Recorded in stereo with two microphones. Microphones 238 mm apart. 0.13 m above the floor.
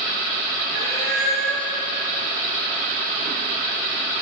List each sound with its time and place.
0.7 s a cat meowing: 60° left (ahead or behind), 2.0 m